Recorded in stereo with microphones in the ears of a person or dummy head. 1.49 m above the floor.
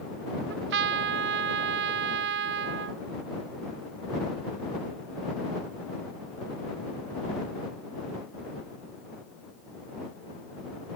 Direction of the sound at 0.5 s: 55° right (ahead or behind).